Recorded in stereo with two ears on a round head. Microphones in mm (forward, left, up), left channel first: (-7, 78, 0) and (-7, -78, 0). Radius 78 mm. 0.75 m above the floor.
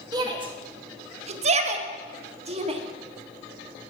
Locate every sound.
0.1 s a shout: 25° right (ahead or behind), 1.2 m; by 2.8 s 35° right (ahead or behind), 1.6 m